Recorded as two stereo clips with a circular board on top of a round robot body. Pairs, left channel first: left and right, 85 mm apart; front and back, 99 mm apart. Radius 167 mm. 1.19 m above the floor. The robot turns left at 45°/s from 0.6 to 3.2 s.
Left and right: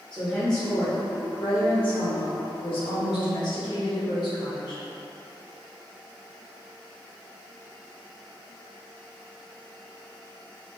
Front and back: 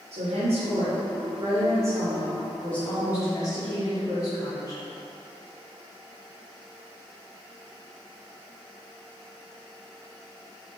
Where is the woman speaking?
175° left, 1.2 m; by 4.8 s 55° left, 1.2 m.